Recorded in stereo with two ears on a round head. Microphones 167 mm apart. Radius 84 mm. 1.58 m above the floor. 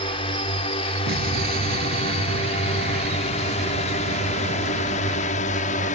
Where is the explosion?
55° right (ahead or behind).